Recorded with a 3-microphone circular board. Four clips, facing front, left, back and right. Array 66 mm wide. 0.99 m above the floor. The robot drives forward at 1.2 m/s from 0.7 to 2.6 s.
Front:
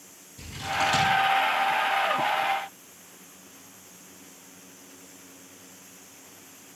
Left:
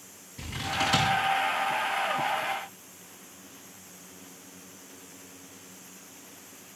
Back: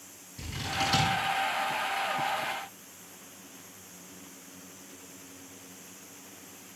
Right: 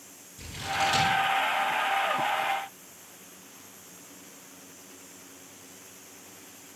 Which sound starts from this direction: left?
Scissors, at 0.4 s.